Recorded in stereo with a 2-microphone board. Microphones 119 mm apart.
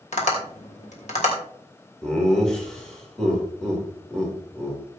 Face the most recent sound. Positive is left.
turn(degrees=5)  # may be behind; listen again after turning